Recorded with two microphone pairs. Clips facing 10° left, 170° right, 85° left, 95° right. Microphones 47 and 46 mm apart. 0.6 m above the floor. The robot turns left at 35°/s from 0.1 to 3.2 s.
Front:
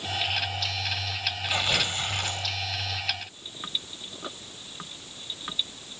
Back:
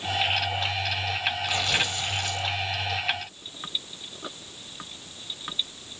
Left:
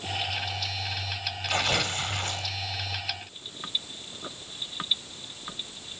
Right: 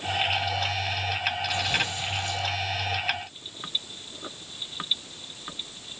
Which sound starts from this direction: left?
Tearing paper, at 1.5 s.